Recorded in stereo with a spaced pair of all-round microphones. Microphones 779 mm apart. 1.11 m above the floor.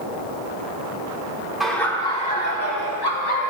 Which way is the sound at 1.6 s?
Centre (ahead or behind).